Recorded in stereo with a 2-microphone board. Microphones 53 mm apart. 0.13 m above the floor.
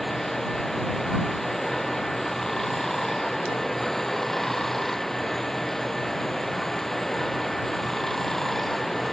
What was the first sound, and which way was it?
Running water, 5° left (ahead or behind).